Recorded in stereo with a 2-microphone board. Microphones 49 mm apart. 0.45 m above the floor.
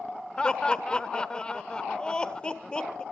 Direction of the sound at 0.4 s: 20° left (ahead or behind).